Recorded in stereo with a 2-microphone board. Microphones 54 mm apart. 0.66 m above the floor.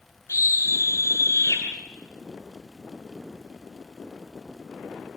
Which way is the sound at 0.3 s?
75° left (ahead or behind).